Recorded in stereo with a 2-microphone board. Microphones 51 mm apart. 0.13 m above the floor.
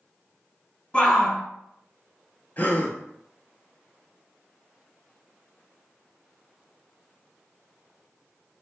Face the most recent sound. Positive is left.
turn(degrees=35)  # may be behind; listen again after turning